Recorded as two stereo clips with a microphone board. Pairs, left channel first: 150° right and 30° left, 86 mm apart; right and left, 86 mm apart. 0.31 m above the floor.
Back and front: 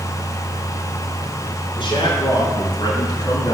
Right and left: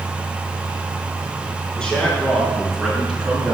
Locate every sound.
1.8 s a man speaking: 175° right, 5 m; by 3.5 s 170° left, 4.5 m